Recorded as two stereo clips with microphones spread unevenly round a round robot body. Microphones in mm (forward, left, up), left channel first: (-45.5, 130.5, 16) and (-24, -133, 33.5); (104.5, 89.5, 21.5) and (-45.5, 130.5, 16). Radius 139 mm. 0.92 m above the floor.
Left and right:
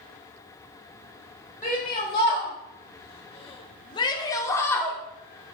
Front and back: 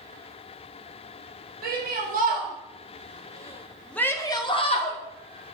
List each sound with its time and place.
1.6 s a shout: 165° left, 1.9 m; by 5.0 s 15° left, 1.3 m